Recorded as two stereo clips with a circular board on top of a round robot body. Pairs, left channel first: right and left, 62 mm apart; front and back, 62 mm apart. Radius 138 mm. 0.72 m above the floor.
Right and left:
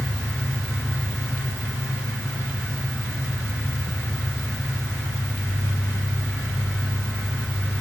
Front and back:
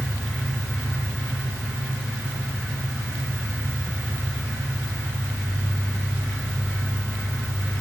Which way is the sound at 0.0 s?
85° right.